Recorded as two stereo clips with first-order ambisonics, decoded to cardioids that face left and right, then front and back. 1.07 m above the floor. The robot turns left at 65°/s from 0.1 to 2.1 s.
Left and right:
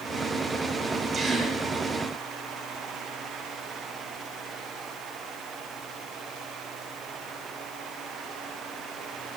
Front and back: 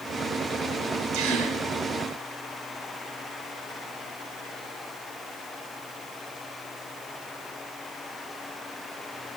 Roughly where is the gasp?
Behind.